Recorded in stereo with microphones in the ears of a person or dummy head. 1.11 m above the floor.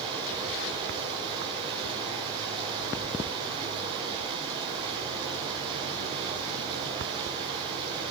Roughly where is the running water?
Right.